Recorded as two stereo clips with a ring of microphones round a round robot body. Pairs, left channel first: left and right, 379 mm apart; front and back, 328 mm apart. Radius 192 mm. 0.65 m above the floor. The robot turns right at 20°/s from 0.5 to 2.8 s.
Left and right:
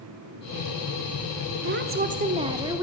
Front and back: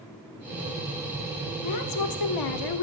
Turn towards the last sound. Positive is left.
turn(degrees=-10)